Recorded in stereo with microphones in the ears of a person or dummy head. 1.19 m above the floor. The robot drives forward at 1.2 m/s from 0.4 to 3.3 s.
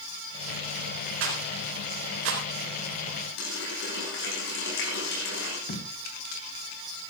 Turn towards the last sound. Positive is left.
turn(degrees=50)  # may be behind; listen again after turning